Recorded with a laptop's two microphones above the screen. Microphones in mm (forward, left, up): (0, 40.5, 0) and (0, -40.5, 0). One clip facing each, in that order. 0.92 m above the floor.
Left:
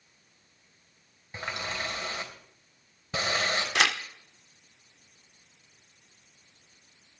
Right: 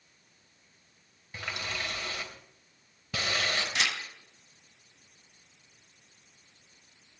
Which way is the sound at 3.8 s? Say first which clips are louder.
Left 10 dB; 75° left (ahead or behind).